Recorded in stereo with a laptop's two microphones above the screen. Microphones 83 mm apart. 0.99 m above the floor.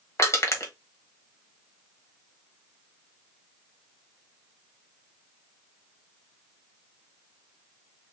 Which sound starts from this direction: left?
Crushing, at 0.2 s.